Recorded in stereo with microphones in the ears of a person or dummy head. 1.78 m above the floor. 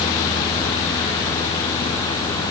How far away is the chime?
No chime in this recording.